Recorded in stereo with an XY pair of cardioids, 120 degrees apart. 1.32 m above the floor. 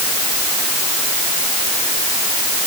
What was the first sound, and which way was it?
Only background noise.